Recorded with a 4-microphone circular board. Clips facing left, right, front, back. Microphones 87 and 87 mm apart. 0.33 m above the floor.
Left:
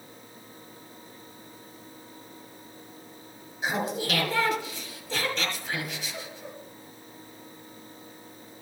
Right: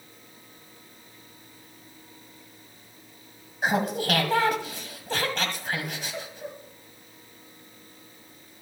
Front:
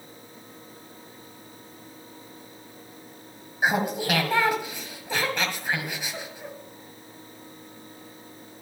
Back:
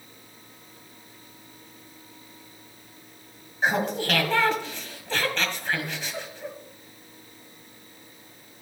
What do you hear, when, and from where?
3.6 s laughter: 75° right, 1.7 m